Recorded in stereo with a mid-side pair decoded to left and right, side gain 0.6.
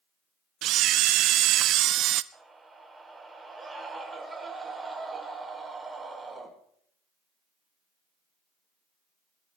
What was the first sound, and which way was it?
A camera shutter, 60° right.